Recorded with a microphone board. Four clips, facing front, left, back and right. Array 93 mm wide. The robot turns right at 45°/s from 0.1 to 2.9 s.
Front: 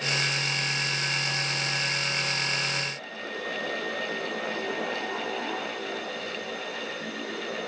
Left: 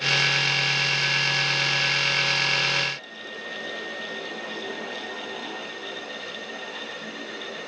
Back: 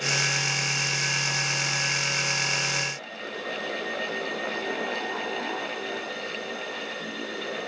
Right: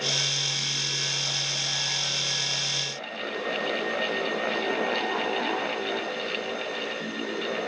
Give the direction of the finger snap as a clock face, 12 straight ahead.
I don't hear a finger snap.